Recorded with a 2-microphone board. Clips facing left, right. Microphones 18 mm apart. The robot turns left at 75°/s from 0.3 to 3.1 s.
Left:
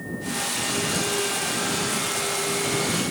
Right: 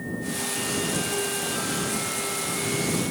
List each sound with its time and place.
Only background noise.